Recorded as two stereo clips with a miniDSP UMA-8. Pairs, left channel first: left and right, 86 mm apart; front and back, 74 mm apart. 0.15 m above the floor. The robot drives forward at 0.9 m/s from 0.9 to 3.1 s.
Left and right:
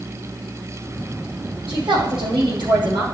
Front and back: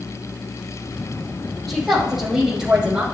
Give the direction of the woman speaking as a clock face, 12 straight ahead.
3 o'clock.